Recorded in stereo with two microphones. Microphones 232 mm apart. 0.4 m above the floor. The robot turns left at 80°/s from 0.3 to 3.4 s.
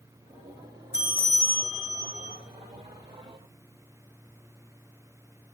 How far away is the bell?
About 1.1 m.